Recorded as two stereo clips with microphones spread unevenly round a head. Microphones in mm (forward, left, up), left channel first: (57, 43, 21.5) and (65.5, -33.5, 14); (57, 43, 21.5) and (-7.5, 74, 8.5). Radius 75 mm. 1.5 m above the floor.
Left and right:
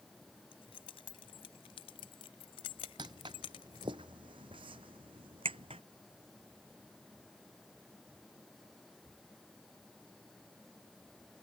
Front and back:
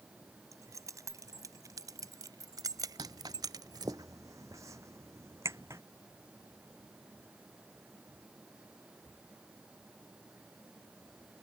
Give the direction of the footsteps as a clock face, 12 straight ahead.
5 o'clock.